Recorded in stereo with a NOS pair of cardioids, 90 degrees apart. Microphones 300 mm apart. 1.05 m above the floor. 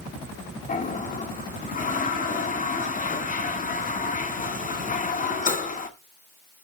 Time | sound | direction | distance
0.7 | a toilet flushing | 25° left | 1.7 m